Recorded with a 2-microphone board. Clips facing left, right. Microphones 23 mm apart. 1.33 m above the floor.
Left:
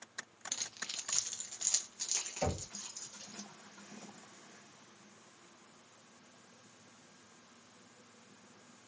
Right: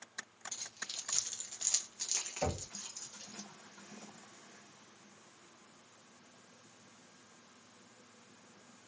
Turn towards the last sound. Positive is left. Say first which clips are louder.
# left 1 dB
turn(degrees=0)  # may be behind; listen again after turning